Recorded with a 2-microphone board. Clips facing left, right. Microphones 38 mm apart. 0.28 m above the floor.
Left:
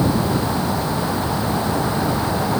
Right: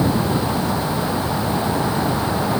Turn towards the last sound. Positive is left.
No sound to turn to.